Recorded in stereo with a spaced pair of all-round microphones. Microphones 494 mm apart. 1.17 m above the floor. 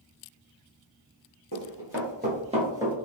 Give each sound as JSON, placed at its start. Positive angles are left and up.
{"t": 1.5, "sound": "running footsteps", "side_deg": -30, "distance_m": 1.6}